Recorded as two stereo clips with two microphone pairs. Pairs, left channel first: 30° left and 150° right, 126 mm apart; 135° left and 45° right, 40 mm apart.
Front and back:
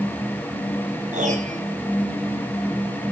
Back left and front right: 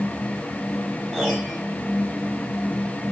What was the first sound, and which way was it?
A piano, 135° right.